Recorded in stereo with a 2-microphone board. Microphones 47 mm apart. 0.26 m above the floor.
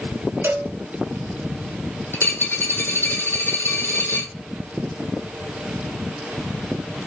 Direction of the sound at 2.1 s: 50° left (ahead or behind).